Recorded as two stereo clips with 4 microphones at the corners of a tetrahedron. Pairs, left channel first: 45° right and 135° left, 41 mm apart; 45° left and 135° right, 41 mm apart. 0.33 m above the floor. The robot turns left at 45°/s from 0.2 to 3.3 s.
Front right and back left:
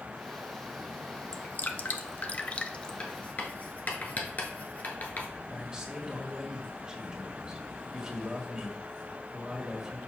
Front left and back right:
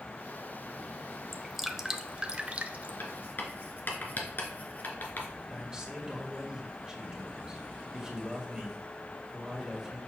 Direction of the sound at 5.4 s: Straight behind.